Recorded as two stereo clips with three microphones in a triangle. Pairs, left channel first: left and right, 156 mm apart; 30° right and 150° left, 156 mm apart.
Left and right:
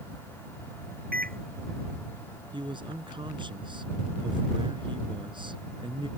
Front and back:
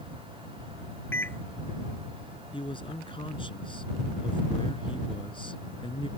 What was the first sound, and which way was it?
A microwave, 105° right.